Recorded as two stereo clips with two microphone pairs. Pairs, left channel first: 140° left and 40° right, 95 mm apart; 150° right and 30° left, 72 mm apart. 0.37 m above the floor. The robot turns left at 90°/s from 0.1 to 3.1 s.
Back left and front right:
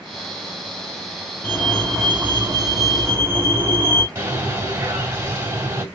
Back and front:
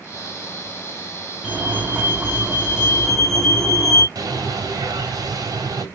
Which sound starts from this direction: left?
A fire alarm, at 1.4 s.